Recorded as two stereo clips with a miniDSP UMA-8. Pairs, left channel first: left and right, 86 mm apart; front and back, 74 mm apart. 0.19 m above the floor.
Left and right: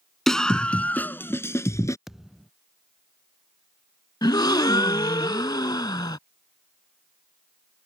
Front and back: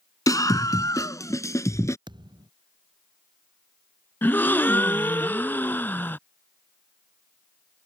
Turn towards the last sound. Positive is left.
turn(degrees=60)